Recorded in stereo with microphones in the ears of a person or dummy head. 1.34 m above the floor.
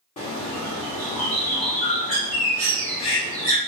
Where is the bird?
30° left (ahead or behind), 1.2 m.